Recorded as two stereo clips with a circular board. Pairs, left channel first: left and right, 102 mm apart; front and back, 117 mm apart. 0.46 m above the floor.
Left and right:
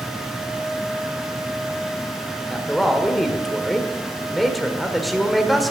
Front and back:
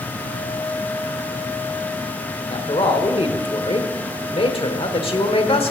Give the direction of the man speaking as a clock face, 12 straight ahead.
12 o'clock.